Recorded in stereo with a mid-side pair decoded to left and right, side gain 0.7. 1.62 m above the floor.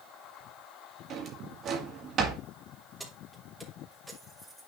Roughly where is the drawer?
Ahead right.